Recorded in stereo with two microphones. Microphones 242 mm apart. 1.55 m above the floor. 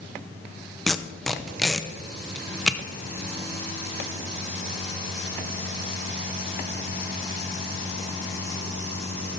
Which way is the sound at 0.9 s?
Centre (ahead or behind).